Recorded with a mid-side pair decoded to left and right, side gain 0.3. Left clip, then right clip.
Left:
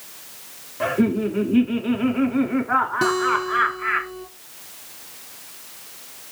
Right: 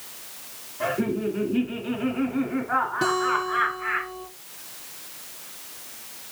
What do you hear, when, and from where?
0.8 s laughter: 60° left, 2.5 m
3.0 s a guitar: 55° left, 3 m